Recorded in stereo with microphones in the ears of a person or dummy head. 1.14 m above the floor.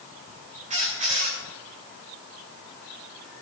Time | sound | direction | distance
0.7 | a squeak | 40° right (ahead or behind) | 3 m